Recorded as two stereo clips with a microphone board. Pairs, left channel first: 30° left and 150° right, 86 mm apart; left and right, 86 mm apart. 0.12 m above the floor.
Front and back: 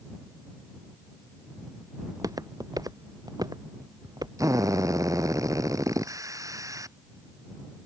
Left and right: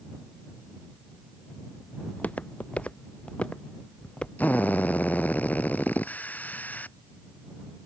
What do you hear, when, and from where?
2.0 s footsteps: 165° left; by 4.3 s 170° left
4.4 s a drill: 160° left